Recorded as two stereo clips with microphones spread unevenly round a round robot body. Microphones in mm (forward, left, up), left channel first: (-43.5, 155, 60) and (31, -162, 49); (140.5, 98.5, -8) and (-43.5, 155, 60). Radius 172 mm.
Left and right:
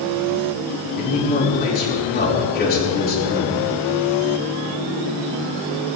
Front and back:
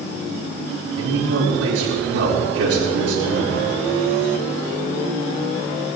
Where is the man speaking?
170° left, 5.5 m.